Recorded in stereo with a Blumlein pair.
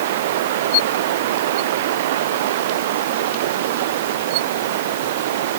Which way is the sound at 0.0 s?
55° right.